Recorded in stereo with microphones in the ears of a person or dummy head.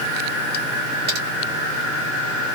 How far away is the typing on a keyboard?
About 1.0 m.